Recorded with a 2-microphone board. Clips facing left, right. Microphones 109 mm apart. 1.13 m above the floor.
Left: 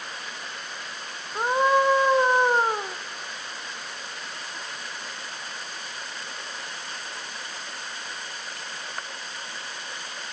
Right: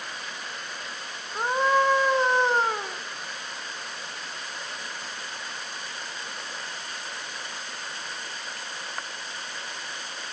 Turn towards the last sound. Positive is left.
turn(degrees=15)  # may be behind; listen again after turning